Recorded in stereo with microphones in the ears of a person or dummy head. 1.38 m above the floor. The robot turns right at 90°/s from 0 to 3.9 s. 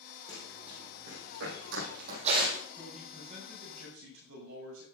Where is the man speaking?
155° left, 6.5 m; by 4.8 s 100° right, 6.5 m.